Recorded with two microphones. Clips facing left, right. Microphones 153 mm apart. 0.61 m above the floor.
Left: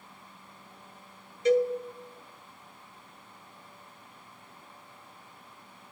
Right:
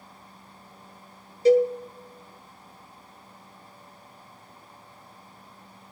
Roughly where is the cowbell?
Right.